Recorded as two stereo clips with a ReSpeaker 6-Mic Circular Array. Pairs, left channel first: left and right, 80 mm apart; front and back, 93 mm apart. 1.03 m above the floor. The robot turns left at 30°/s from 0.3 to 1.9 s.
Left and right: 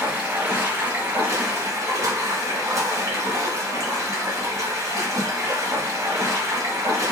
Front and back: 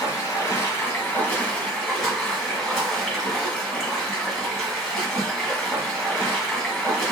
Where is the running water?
35° right, 1.2 m; by 7.1 s 80° right, 1.2 m.